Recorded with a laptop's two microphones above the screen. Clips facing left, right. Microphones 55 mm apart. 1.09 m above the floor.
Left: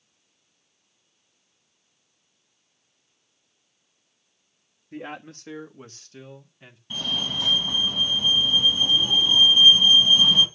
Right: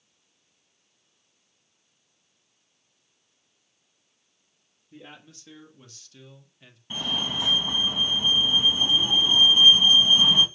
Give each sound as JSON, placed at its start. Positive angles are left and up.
{"t": 4.9, "sound": "a man speaking", "side_deg": 60, "distance_m": 1.4}
{"t": 6.9, "sound": "a fire alarm", "side_deg": -20, "distance_m": 2.5}